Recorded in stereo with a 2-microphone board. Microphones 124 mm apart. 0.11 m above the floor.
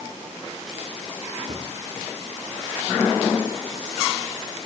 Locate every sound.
1.5 s a thud: 40° right (ahead or behind), 6 m